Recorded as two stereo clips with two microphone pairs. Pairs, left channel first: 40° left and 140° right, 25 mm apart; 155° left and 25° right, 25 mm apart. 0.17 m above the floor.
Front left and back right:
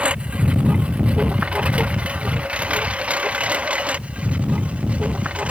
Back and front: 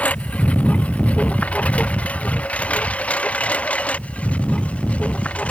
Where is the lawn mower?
Straight behind; by 5.5 s 175° right.